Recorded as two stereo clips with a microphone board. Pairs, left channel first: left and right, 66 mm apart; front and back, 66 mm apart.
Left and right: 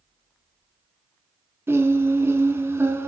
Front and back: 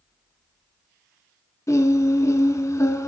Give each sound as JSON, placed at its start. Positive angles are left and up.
{"t": 1.7, "sound": "singing", "azimuth_deg": -40, "distance_m": 0.6}